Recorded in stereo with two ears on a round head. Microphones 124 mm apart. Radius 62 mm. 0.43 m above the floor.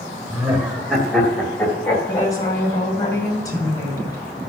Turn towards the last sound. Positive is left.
turn(degrees=25)  # may be behind; listen again after turning